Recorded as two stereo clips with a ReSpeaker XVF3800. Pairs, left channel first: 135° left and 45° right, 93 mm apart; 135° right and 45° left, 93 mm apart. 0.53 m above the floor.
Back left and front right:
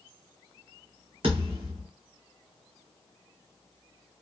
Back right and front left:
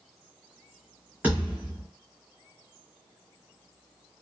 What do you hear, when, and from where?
1.2 s a thud: 30° right, 1.8 m